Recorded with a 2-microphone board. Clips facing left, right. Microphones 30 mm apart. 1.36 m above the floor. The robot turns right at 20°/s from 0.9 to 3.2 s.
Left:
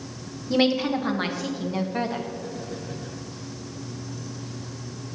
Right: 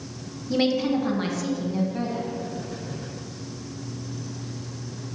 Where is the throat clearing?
No throat clearing in this recording.